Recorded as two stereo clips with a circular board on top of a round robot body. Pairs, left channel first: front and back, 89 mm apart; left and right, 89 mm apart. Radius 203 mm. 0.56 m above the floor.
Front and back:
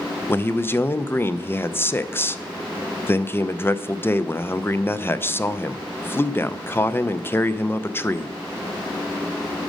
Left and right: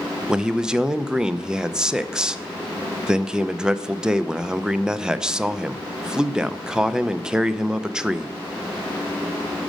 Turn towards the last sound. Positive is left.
turn(degrees=-20)